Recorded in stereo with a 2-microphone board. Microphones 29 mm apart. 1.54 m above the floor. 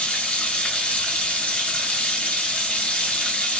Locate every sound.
0.0 s running water: 55° left (ahead or behind), 1.4 m